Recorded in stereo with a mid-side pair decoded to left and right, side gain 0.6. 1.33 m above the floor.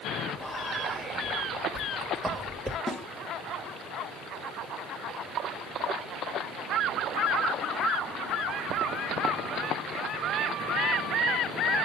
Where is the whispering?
10° right, 2 m.